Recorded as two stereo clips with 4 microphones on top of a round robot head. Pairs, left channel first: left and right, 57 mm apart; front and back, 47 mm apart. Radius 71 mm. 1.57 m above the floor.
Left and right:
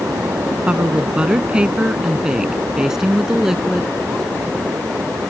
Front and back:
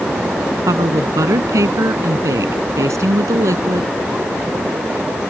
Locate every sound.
0.7 s a woman speaking: 165° right; by 4.0 s 175° right